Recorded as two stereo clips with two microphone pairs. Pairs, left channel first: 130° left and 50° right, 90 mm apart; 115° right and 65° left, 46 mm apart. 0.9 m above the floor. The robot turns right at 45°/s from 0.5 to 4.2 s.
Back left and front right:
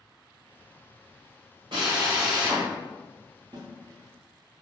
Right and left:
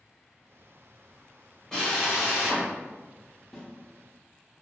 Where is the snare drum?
40° right, 0.6 m; by 3.7 s 35° right, 0.6 m.